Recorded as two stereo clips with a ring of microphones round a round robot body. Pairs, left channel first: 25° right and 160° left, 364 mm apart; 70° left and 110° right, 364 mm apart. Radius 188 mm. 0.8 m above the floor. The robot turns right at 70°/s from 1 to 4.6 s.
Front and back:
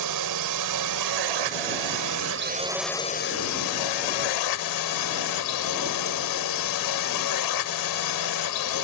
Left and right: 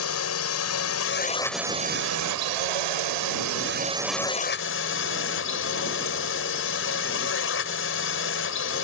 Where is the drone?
120° left; by 8.8 s 10° left.